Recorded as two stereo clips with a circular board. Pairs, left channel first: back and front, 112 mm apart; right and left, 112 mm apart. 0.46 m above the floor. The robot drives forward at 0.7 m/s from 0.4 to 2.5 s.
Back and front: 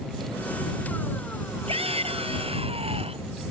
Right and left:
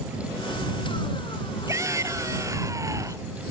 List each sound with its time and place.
1.7 s a shout: 25° left; by 3.3 s 30° left